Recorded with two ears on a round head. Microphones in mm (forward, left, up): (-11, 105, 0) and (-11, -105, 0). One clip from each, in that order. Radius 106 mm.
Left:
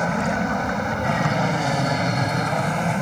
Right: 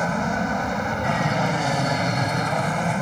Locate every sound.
0.0 s an aircraft: 5° right (ahead or behind)